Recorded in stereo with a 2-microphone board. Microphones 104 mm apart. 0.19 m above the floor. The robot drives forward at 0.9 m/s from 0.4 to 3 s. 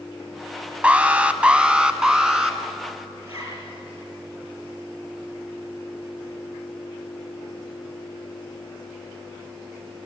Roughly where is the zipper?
Right.